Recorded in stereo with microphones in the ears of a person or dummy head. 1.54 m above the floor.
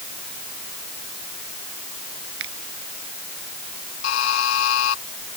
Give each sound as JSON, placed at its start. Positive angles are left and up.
{"t": 2.4, "sound": "a finger snap", "side_deg": -75}
{"t": 4.0, "sound": "a buzzer", "side_deg": 70}